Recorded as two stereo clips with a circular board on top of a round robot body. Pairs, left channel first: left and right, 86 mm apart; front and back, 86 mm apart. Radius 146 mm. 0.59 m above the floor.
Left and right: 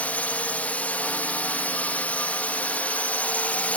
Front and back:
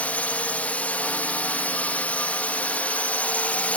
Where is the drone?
45° left.